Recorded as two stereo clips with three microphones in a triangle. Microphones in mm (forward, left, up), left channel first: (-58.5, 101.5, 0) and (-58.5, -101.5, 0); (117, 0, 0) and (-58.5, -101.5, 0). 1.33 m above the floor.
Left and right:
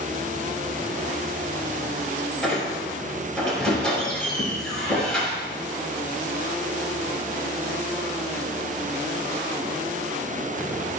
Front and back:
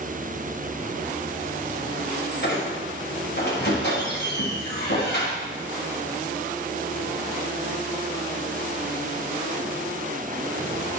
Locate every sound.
2.4 s a squeak: straight ahead, 5.5 m